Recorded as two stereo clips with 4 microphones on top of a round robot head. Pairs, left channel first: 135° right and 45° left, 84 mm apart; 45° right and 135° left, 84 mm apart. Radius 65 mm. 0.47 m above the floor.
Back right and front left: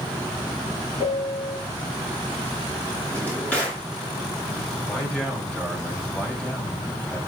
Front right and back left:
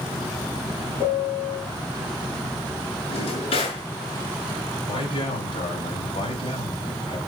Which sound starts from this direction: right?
A piano, at 1.0 s.